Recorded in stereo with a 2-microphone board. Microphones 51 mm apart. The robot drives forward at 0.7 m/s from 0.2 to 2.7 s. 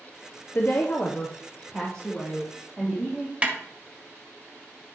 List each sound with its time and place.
0.6 s a woman speaking: 50° left (ahead or behind), 0.6 m; by 3.3 s 15° left (ahead or behind), 1.8 m
3.4 s a snare drum: 25° right (ahead or behind), 1.4 m